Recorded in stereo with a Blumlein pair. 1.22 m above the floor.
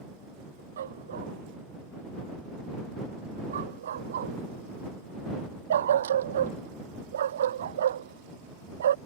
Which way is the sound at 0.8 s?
65° right.